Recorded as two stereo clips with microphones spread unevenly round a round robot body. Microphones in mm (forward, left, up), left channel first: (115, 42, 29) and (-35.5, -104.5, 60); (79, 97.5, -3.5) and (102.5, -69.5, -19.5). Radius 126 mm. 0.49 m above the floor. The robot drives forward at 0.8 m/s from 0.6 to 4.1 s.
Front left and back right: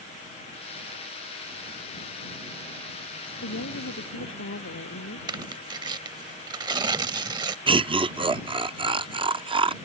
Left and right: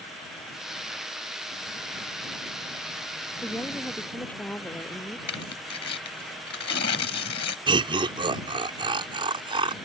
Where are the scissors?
No scissors in this recording.